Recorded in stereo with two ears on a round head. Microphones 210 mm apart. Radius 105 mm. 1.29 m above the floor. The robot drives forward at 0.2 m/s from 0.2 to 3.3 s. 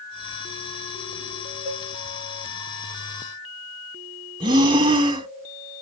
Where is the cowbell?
10° left (ahead or behind), 4 m.